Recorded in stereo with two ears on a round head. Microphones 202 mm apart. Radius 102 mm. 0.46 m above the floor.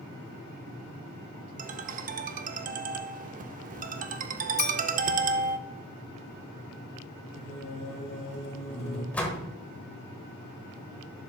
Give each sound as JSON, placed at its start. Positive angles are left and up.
{"t": 1.6, "sound": "a ringtone", "side_deg": -35, "distance_m": 0.6}
{"t": 4.6, "sound": "a clink", "side_deg": 50, "distance_m": 3.5}
{"t": 7.3, "sound": "singing", "side_deg": 30, "distance_m": 4.0}
{"t": 9.1, "sound": "a door slam", "side_deg": 5, "distance_m": 1.4}